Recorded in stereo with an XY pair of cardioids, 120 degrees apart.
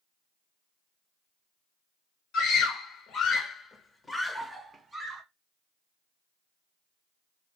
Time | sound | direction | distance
2.3 | a scream | 70° left | 1.1 m